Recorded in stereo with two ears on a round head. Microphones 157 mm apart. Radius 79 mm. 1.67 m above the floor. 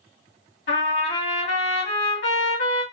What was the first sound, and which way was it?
A trumpet, 80° left.